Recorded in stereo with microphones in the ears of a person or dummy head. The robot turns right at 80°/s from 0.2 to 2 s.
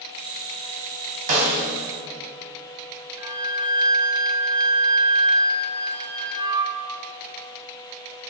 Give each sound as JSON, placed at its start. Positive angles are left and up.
{"t": 1.3, "sound": "a snare drum", "side_deg": -45, "distance_m": 3.0}
{"t": 3.2, "sound": "a flute", "side_deg": -20, "distance_m": 1.1}